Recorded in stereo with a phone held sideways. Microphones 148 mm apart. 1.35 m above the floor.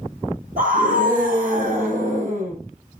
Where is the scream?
75° right (ahead or behind), 7.5 m; by 2.5 s 60° right (ahead or behind), 7.5 m.